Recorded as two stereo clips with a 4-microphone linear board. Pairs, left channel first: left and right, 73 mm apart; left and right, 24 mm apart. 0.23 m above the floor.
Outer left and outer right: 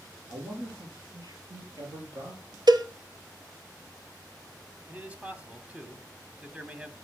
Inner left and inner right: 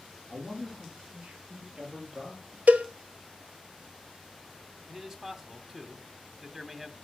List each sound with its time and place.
0.3 s a man speaking: 70° right (ahead or behind), 4.5 m; by 2.6 s 60° right (ahead or behind), 4.5 m
2.7 s a cowbell: 80° right, 0.9 m
4.9 s a man speaking: 20° right (ahead or behind), 1.4 m